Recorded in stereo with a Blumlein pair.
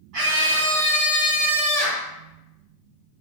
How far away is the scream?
About 1.6 m.